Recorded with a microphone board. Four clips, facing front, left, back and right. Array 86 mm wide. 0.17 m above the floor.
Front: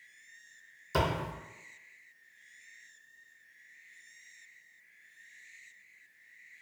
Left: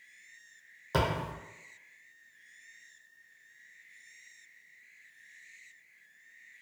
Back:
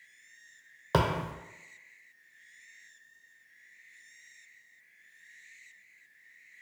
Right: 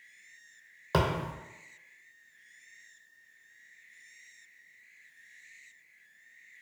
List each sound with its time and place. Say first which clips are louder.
0.9 s a thud: right 2 dB, back 3 dB; 160° right, 0.7 m